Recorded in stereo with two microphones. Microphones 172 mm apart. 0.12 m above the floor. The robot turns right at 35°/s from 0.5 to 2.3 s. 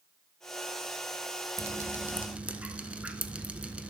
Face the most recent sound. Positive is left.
turn(degrees=-10)  # may be behind; listen again after turning